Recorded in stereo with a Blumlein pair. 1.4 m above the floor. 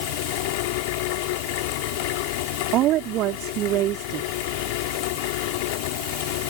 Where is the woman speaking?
35° right.